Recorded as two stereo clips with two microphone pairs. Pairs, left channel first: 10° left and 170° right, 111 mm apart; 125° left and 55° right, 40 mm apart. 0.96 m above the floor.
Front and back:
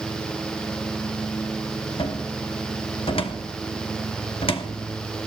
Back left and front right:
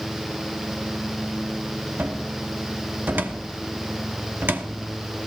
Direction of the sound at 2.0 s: 25° right.